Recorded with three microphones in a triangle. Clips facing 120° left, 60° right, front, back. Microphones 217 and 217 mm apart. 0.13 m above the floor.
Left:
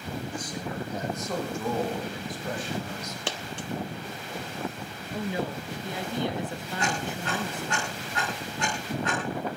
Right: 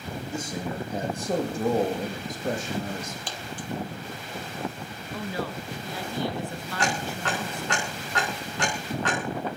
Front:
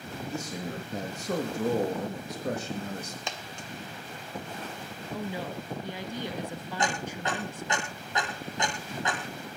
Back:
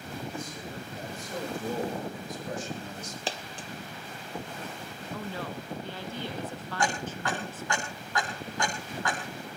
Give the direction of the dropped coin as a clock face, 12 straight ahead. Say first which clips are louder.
Left 2 dB, back 3 dB; 8 o'clock.